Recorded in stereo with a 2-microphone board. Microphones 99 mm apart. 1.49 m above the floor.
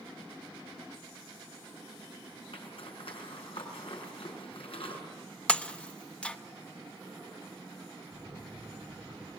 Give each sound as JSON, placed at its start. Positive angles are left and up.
{"t": 2.5, "sound": "a zipper", "side_deg": 65, "distance_m": 5.5}
{"t": 5.5, "sound": "breaking glass", "side_deg": 10, "distance_m": 0.9}
{"t": 8.1, "sound": "a phone buzzing", "side_deg": -20, "distance_m": 8.5}